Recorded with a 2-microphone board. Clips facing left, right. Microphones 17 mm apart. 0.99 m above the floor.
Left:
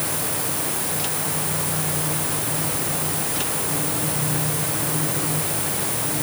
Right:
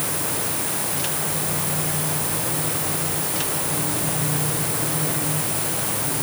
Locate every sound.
Only background noise.